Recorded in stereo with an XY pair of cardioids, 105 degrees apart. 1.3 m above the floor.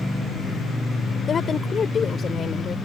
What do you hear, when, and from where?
1.3 s a woman speaking: 45° left